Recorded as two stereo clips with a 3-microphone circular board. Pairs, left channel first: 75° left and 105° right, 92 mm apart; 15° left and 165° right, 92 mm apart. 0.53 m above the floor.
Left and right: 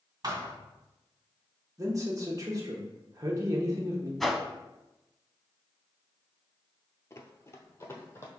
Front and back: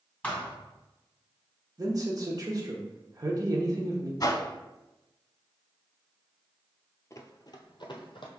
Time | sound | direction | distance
0.2 | a thud | 55° right | 1.6 m
1.8 | a man speaking | 135° right | 0.9 m
4.2 | a whoosh | 10° right | 0.5 m
7.1 | running footsteps | 45° left | 0.6 m